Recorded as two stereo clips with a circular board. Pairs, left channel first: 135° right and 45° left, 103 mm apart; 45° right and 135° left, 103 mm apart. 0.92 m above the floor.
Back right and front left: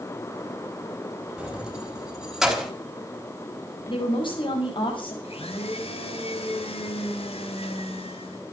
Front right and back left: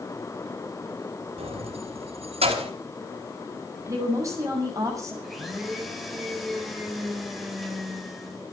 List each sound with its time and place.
1.4 s keys jangling: 125° left, 4 m; by 2.7 s 135° left, 4.5 m
3.9 s a woman speaking: 170° right, 6.5 m
5.2 s a blender: 135° right, 3.5 m